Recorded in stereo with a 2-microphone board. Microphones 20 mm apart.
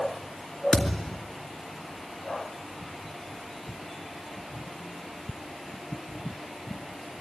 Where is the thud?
30° left (ahead or behind), 3 m.